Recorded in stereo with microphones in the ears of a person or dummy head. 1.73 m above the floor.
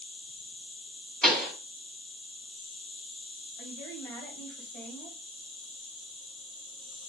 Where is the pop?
Centre (ahead or behind), 2 m.